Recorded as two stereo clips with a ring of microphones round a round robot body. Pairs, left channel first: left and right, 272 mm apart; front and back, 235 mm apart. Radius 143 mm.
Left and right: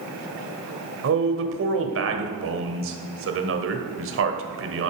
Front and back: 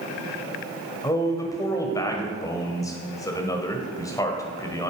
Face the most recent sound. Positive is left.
turn(degrees=-75)